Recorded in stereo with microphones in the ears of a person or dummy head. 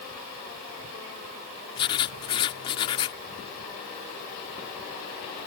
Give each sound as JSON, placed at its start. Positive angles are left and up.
{"t": 1.8, "sound": "writing", "side_deg": 25}